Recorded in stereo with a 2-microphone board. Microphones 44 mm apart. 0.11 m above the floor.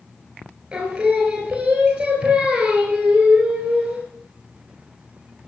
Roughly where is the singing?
Centre.